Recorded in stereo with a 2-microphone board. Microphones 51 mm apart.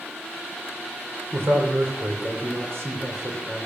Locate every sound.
1.3 s a man speaking: 55° right (ahead or behind), 3 m